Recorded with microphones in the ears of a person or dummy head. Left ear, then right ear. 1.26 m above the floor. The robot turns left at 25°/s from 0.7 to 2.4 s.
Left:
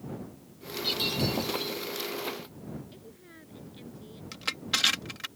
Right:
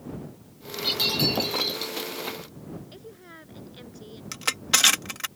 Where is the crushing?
35° right (ahead or behind).